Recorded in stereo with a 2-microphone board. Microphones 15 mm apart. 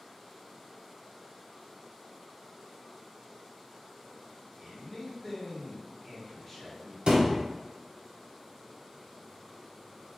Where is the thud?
85° right, 0.6 m.